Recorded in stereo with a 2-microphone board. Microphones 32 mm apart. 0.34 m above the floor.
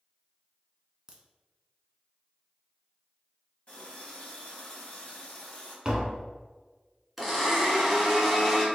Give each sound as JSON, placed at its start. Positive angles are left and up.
{"t": 1.1, "sound": "a crack", "side_deg": -20, "distance_m": 0.6}
{"t": 3.7, "sound": "a running tap", "side_deg": 40, "distance_m": 1.2}
{"t": 5.8, "sound": "tapping", "side_deg": -25, "distance_m": 0.7}
{"t": 7.2, "sound": "a blender", "side_deg": -5, "distance_m": 1.1}